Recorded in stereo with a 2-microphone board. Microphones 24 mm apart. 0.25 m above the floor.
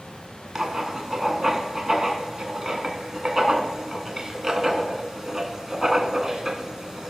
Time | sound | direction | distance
0.6 | writing | 25° right (ahead or behind) | 1.2 m